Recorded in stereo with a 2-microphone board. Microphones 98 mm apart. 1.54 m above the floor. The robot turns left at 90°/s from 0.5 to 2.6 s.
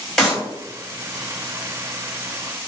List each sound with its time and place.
0.2 s a clap: 5° left (ahead or behind), 1.2 m